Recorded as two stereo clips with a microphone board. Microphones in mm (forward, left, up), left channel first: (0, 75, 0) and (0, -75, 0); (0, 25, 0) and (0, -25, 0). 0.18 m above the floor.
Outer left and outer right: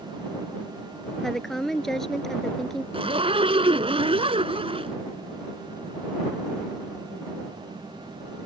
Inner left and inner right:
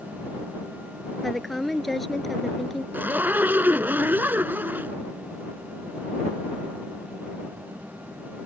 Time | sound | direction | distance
1.2 | a woman speaking | centre (ahead or behind) | ?
2.9 | a zipper | 40° right (ahead or behind) | ?